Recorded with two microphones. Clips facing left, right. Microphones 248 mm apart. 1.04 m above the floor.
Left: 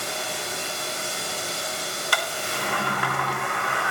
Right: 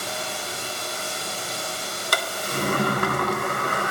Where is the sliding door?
45° right (ahead or behind), 0.7 m.